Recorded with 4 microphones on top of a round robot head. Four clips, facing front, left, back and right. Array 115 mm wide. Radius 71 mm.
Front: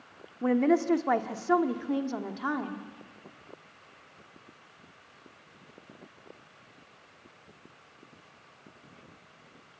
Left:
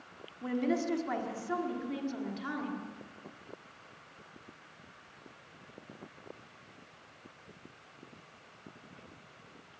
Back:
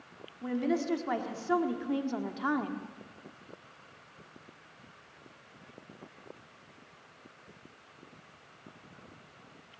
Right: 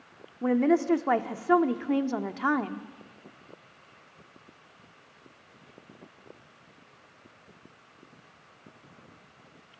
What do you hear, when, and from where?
0.4 s a woman speaking: 45° right, 1.6 m; by 2.9 s 95° right, 1.5 m